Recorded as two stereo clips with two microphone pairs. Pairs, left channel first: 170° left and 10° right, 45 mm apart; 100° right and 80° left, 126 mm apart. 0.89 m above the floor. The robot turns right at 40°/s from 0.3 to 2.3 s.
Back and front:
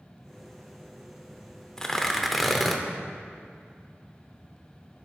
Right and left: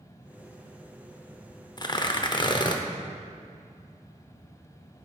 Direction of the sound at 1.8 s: 120° right.